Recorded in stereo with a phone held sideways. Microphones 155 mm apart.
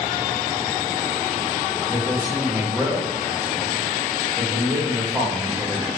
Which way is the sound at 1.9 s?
15° right (ahead or behind).